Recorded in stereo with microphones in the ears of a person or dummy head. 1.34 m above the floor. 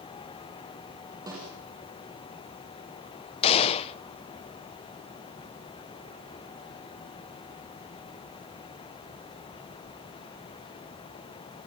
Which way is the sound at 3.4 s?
30° left (ahead or behind).